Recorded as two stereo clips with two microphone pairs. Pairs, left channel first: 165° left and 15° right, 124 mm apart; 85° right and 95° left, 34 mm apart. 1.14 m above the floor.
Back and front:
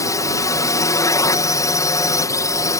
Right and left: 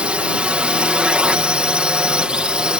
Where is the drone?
120° left; by 2.8 s 125° left.